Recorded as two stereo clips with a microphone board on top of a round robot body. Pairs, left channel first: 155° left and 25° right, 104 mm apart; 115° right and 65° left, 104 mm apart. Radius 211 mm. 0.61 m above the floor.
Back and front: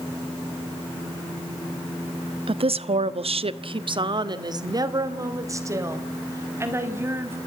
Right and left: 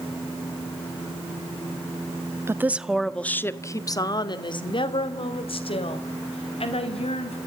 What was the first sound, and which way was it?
A woman speaking, 5° left.